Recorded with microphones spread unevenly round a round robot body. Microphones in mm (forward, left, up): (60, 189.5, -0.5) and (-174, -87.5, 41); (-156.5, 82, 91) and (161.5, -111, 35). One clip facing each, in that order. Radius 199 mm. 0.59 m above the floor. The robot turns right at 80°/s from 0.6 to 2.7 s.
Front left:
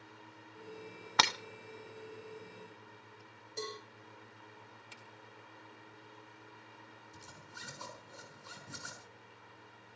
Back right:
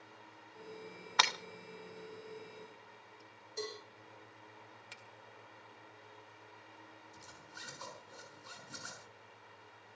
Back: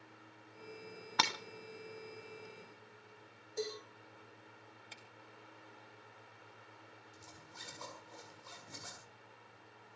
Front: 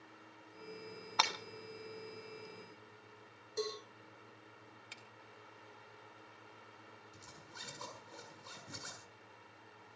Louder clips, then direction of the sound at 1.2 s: Front left 3 dB, back 1 dB; 90° left.